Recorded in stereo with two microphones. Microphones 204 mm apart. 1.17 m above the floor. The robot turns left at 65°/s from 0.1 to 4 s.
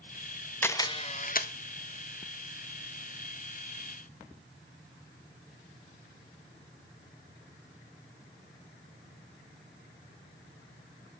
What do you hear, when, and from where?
0.6 s a camera shutter: 170° left, 0.6 m; by 1.5 s 110° left, 0.6 m